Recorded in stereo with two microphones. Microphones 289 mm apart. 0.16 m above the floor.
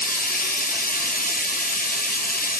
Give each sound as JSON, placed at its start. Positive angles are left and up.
{"t": 0.0, "sound": "running water", "side_deg": 30, "distance_m": 1.3}